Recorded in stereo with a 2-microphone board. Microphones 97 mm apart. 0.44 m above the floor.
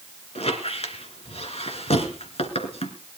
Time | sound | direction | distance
0.3 | a squeak | 80° left | 1.9 m